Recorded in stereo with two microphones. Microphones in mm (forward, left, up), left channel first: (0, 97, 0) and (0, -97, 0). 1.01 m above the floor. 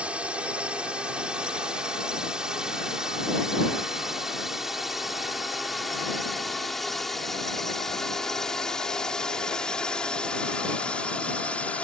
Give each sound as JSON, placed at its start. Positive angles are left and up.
{"t": 0.0, "sound": "a drone", "side_deg": -5}